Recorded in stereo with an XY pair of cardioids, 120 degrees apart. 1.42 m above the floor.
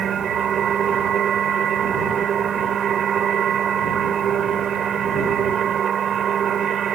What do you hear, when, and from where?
0.0 s a machine running: 50° right